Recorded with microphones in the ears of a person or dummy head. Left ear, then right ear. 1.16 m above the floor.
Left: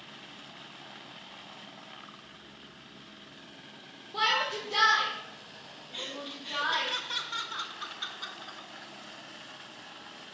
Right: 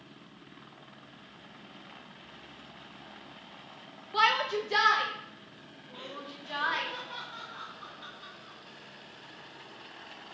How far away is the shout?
About 0.6 m.